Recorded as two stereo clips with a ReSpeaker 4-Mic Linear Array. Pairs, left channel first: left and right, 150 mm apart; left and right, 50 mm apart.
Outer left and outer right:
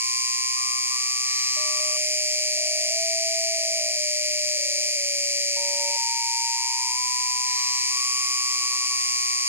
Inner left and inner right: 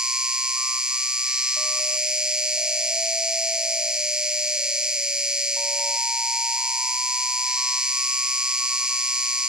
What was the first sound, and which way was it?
An insect, 15° right (ahead or behind).